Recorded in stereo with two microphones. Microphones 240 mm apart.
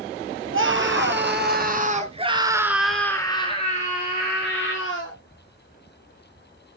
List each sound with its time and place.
0.5 s a scream: 55° right (ahead or behind), 3 m; by 5.2 s 55° left (ahead or behind), 3 m